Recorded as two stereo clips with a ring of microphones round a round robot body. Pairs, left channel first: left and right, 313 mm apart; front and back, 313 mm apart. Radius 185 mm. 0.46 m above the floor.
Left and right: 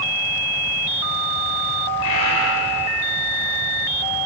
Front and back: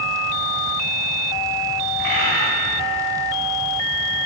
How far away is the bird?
About 5.5 m.